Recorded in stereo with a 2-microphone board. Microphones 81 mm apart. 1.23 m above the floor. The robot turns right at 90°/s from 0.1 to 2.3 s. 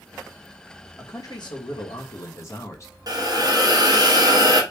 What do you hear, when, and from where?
1.0 s a man speaking: 25° left, 1.2 m; by 2.9 s 145° left, 1.2 m
3.1 s a hiss: 50° right (ahead or behind), 1.0 m